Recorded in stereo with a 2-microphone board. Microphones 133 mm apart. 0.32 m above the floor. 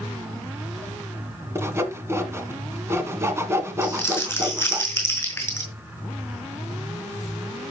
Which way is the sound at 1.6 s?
20° right (ahead or behind).